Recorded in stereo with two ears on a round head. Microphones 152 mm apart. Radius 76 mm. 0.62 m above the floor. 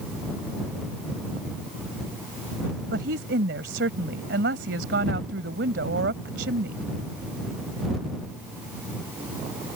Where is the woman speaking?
80° right.